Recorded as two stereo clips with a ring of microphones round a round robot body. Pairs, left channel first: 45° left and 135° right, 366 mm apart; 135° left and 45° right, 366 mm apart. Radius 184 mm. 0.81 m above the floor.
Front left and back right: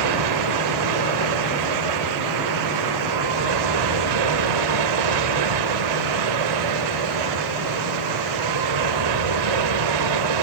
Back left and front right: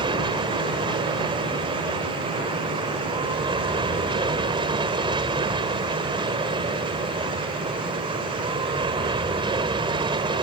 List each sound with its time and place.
0.0 s an aircraft: 120° right